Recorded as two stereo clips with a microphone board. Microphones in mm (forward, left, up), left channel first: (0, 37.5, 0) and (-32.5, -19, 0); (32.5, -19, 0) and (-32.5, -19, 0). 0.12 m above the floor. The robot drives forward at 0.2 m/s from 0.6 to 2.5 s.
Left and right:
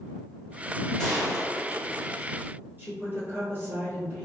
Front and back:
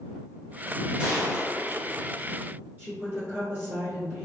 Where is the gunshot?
130° left, 1.2 m; by 2.2 s 145° left, 1.3 m.